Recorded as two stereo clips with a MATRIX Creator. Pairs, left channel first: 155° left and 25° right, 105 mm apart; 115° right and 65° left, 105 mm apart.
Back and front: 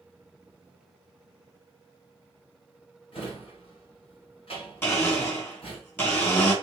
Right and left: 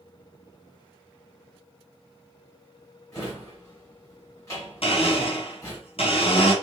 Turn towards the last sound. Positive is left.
turn(degrees=-135)